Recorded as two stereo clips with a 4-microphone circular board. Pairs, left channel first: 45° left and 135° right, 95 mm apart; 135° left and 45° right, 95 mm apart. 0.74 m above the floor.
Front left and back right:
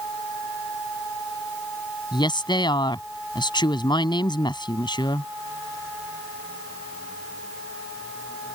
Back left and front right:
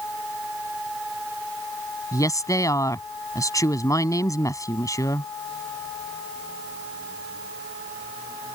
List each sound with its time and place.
2.1 s a woman speaking: 80° left